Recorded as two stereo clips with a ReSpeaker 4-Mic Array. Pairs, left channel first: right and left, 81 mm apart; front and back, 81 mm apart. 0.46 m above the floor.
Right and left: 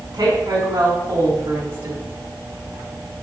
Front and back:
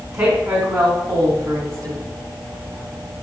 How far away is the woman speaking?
About 5 m.